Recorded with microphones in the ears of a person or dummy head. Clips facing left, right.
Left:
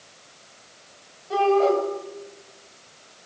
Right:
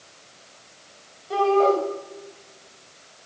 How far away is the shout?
About 7.5 m.